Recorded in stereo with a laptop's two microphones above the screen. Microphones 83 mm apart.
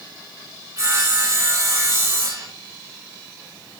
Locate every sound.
0.8 s sawing: 40° right (ahead or behind), 3.5 m